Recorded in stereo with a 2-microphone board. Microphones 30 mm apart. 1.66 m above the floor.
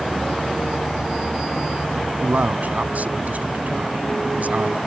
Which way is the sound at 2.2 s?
65° right (ahead or behind).